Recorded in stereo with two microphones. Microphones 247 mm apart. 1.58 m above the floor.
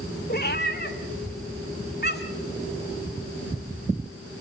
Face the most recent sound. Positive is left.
turn(degrees=40)  # may be behind; listen again after turning